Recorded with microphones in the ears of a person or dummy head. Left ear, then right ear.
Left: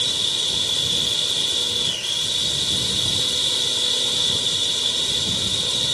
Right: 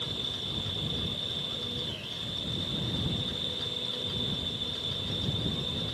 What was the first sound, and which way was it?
A machine running, 75° left (ahead or behind).